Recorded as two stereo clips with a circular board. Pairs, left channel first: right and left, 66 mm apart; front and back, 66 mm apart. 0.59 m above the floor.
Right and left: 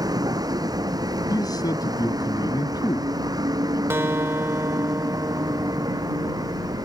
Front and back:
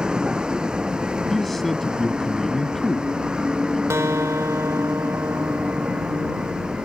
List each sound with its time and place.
0.0 s a vehicle: 105° left
1.3 s a man speaking: 85° right
3.9 s a guitar: 140° left